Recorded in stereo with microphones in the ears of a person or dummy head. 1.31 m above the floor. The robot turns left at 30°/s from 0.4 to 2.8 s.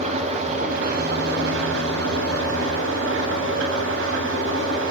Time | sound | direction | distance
0.0 | an engine running | 35° right | 9 m